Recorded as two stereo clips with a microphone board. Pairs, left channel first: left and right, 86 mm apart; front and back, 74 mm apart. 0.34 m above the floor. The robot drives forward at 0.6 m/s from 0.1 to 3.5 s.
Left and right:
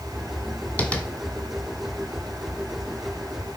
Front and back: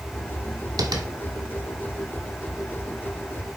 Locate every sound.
0.8 s tapping: 160° left, 1.2 m